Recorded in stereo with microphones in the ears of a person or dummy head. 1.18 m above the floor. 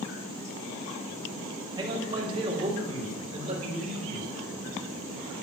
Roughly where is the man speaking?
Right.